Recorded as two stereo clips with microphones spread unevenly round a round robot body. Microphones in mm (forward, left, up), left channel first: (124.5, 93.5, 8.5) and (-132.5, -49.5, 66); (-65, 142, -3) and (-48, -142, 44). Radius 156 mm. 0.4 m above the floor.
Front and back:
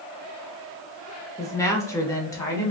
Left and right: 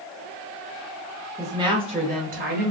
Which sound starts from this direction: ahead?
A woman speaking, at 1.4 s.